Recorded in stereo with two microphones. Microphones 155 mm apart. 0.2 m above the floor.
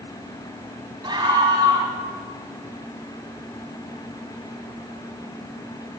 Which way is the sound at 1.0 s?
30° right (ahead or behind).